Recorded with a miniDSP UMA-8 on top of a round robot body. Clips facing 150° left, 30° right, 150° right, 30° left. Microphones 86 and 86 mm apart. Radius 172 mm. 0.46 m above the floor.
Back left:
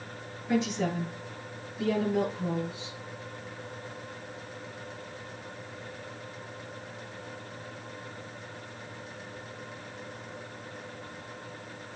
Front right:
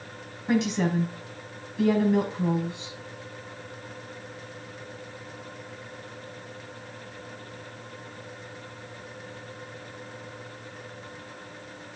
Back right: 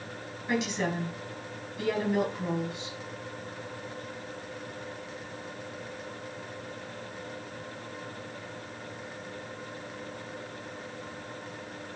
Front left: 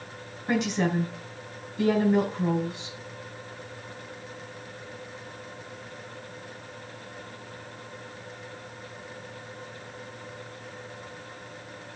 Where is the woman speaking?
15° right, 9.5 m.